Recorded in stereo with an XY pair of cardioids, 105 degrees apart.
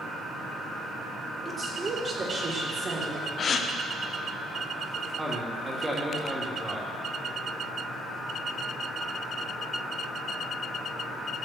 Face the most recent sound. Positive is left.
turn(degrees=-20)